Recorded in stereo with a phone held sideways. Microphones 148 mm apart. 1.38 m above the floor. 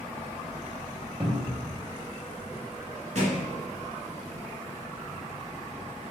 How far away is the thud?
About 2 m.